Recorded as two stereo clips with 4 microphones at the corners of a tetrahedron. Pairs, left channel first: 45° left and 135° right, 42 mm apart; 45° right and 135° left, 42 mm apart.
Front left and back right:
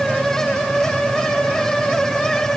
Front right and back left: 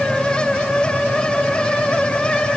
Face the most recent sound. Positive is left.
No sound to turn to.